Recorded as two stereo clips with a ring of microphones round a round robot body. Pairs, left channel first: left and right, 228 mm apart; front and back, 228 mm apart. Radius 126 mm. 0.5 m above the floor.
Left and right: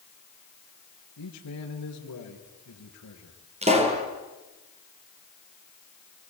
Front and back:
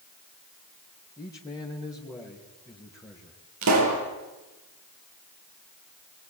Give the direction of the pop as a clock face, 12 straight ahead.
5 o'clock.